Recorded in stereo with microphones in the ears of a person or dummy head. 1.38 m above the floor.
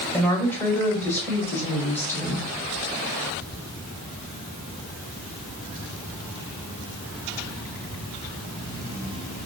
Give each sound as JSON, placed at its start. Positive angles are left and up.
{"t": 0.1, "sound": "a woman speaking", "side_deg": 10, "distance_m": 1.5}